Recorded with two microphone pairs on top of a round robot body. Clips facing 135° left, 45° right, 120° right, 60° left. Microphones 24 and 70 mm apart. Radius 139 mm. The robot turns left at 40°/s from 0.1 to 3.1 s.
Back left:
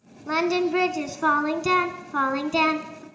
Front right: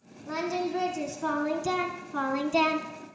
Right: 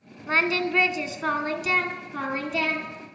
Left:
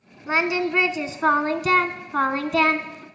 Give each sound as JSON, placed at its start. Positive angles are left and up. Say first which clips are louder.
{"t": 0.3, "sound": "singing", "louder": "back left 7 dB, left 2 dB", "azimuth_deg": 160, "distance_m": 1.3}